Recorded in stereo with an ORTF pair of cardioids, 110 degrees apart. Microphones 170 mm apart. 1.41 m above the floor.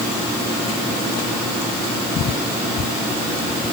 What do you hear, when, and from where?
Only background noise.